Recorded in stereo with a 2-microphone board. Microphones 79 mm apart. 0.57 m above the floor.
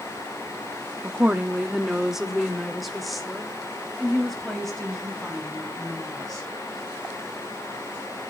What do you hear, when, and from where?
1.0 s a woman speaking: 20° right (ahead or behind), 0.7 m; by 6.5 s 5° left (ahead or behind), 5 m